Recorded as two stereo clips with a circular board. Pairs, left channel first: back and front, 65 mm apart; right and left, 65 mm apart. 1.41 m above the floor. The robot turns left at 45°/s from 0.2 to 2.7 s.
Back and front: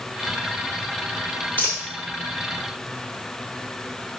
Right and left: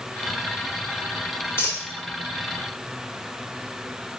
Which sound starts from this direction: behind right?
A dropped coin, at 1.6 s.